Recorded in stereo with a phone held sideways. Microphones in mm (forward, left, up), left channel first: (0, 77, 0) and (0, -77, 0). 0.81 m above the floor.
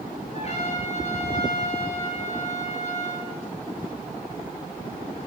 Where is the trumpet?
45° left (ahead or behind), 8 m.